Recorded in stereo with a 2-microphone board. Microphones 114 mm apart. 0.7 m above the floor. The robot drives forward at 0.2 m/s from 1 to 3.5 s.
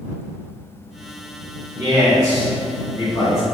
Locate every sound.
1.8 s a man speaking: 35° right (ahead or behind), 1.5 m; by 3.5 s 30° right (ahead or behind), 1.8 m